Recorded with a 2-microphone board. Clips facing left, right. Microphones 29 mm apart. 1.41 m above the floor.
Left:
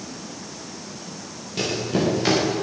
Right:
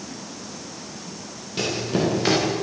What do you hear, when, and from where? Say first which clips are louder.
1.6 s running footsteps: even; 10° right (ahead or behind), 9 m